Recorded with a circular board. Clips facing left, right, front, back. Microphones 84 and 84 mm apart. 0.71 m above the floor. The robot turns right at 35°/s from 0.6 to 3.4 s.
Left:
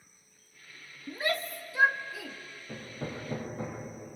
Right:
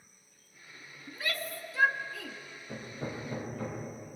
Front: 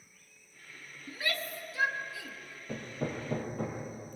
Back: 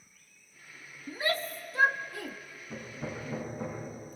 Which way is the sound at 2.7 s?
5° left.